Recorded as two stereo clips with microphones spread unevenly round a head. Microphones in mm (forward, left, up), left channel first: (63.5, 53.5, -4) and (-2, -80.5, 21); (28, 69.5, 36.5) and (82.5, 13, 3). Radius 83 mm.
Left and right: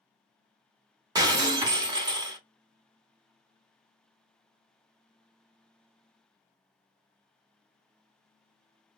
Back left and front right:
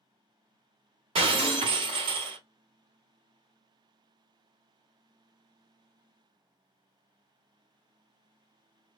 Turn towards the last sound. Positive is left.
turn(degrees=-65)